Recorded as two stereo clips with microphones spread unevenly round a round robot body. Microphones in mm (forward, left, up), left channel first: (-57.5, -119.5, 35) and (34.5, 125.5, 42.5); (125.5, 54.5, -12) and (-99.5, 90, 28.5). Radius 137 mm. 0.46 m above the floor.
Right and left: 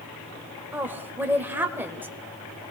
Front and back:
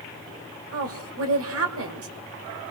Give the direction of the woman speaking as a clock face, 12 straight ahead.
7 o'clock.